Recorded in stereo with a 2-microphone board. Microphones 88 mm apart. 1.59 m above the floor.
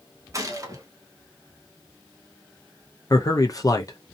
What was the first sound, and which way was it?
A gunshot, 35° right (ahead or behind).